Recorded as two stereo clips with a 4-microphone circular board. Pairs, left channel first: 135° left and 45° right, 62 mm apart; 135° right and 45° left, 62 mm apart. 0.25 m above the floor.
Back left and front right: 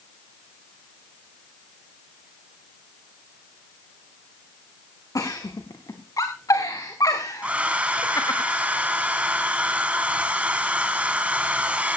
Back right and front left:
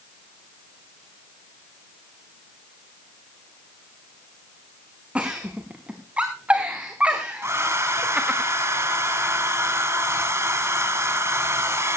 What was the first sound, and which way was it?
A giggle, 115° left.